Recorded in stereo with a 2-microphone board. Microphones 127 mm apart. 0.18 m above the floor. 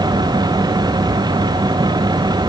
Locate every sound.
Only background noise.